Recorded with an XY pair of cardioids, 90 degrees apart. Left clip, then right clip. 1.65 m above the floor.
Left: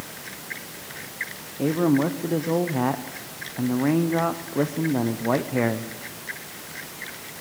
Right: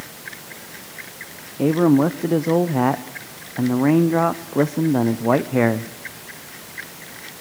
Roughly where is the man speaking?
Ahead right.